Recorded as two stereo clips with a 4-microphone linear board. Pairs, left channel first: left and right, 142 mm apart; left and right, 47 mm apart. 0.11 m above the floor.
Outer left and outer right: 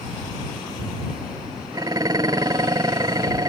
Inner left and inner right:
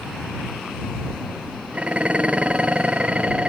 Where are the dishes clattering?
25° right (ahead or behind).